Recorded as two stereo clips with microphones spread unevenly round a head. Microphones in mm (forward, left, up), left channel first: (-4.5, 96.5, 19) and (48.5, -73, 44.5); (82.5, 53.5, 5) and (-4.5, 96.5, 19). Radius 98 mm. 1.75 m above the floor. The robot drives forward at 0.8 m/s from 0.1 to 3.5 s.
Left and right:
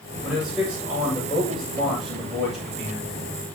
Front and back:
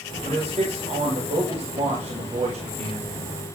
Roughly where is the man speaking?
Behind.